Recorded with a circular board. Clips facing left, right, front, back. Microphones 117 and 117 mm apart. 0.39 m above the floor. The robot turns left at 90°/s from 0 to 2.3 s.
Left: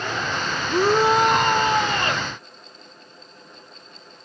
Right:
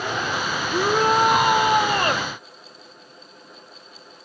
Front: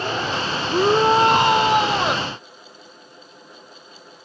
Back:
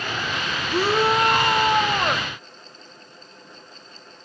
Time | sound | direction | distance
0.7 | a shout | 50° left | 0.9 m